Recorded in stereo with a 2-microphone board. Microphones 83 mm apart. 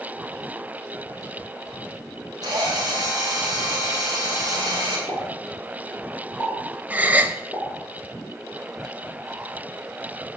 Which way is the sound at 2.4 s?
50° right (ahead or behind).